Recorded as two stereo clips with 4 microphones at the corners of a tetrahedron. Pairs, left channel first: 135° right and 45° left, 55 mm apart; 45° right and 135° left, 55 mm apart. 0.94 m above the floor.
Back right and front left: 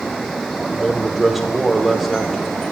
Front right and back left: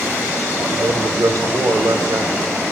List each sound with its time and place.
0.7 s a man speaking: 135° left, 3 m